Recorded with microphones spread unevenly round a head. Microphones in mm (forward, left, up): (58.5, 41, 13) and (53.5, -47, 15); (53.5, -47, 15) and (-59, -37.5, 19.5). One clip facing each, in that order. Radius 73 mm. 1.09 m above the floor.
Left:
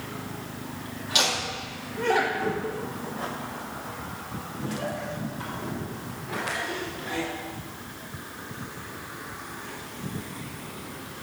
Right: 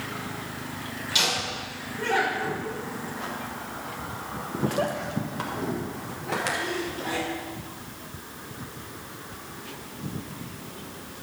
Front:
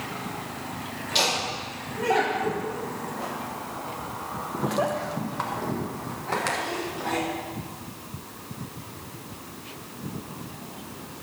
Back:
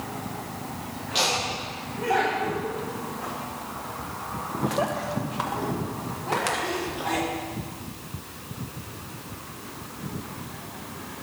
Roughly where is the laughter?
Ahead left.